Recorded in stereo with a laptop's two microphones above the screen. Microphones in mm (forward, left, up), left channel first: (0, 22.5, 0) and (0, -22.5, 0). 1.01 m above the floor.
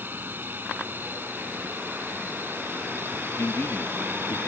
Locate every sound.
0.0 s a drone: 40° right (ahead or behind); by 4.5 s 45° right (ahead or behind)
3.4 s a man speaking: 55° left (ahead or behind)